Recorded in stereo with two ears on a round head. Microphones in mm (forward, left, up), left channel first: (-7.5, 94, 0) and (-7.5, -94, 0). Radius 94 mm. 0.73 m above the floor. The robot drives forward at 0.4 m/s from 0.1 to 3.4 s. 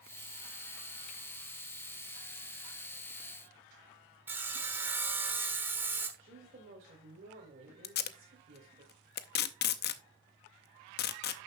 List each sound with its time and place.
4.3 s sawing: 10° right (ahead or behind), 1.2 m
6.2 s a woman speaking: 40° right (ahead or behind), 3 m
7.8 s tape being pulled: 50° left (ahead or behind), 0.6 m